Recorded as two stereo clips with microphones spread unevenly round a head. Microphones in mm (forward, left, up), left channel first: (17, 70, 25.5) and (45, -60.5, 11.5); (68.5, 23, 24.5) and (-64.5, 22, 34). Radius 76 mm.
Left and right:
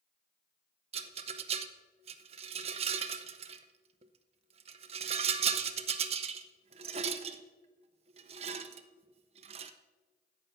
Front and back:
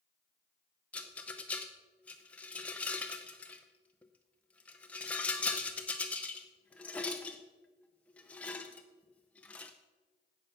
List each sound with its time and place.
0.9 s a rattle: 80° right, 0.5 m